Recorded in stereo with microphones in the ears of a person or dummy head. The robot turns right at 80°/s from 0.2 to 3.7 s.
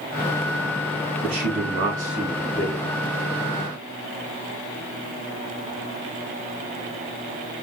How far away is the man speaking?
About 2.5 m.